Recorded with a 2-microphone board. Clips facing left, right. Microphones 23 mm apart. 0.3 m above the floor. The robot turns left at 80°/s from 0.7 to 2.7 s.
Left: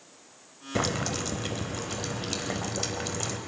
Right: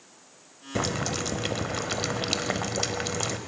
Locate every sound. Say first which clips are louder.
0.8 s boiling: even; 10° left, 0.7 m; by 3.4 s 150° right, 0.7 m